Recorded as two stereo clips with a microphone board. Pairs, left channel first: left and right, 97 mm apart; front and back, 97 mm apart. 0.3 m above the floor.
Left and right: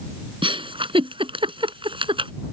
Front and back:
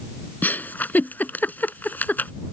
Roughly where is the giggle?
Right.